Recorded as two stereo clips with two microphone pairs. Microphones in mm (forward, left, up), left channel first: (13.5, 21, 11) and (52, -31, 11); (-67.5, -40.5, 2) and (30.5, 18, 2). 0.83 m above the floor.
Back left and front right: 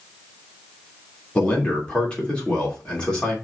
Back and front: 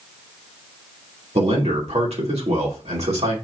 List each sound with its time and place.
1.4 s a man speaking: 50° left, 2.5 m